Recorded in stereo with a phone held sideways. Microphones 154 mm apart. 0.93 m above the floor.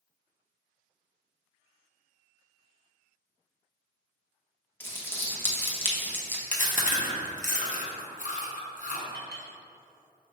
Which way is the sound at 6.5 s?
55° left (ahead or behind).